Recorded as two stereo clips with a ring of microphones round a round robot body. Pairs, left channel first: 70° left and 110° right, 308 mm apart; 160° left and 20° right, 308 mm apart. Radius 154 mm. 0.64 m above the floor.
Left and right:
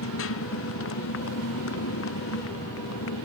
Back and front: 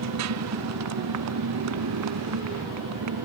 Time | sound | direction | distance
0.0 | a motorcycle | 20° left | ?